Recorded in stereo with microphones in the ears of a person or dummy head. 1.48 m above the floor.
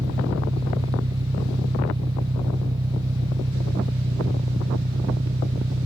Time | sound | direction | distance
0.0 | an engine running | 20° right (ahead or behind) | ?